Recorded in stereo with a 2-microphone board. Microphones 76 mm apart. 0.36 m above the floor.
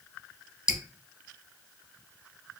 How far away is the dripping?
About 0.7 m.